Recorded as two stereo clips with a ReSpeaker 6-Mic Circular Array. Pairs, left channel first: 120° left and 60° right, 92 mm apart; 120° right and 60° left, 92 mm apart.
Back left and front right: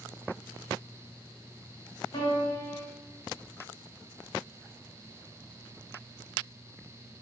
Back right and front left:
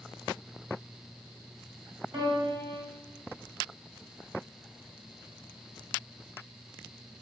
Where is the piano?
100° left, 3 m.